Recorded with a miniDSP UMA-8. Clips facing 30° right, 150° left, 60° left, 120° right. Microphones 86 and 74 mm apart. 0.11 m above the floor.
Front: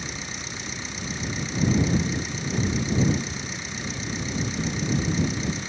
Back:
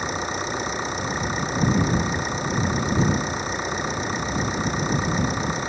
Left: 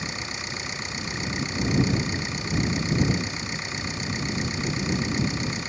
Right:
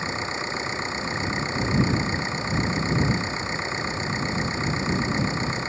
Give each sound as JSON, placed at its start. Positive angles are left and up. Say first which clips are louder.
{"t": 0.0, "sound": "an engine running", "louder": "back 10 dB, right 5 dB", "azimuth_deg": 180}